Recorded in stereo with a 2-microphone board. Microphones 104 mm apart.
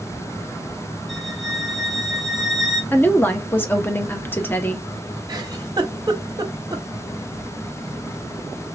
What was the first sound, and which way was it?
A violin, centre (ahead or behind).